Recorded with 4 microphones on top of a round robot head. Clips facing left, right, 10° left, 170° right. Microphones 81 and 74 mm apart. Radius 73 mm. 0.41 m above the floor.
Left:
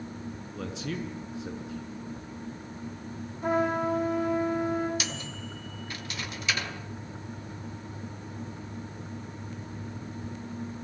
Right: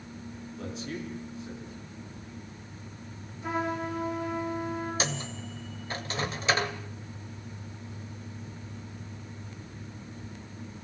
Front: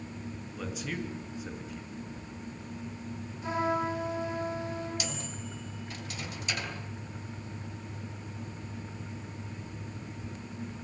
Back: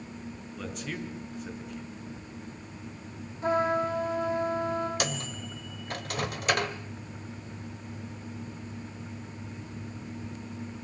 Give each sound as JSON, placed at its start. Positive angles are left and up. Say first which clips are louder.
{"t": 0.5, "sound": "a man speaking", "louder": "left 2 dB, even", "azimuth_deg": 100, "distance_m": 5.5}
{"t": 3.4, "sound": "a trumpet", "louder": "left 5 dB, back 4 dB", "azimuth_deg": 140, "distance_m": 8.5}
{"t": 5.0, "sound": "a microwave", "louder": "right 4 dB, back 5 dB", "azimuth_deg": -145, "distance_m": 1.9}